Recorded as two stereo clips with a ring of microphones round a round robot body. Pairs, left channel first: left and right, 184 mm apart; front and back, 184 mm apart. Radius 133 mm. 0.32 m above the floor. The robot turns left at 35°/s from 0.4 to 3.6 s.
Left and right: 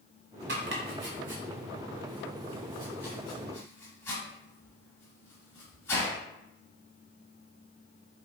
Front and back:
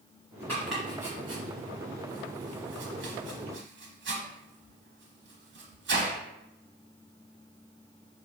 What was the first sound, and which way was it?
Chopping, 85° right.